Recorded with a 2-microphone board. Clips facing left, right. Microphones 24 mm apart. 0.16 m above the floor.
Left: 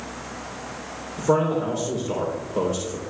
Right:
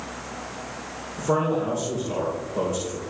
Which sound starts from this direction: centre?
A man speaking, at 1.2 s.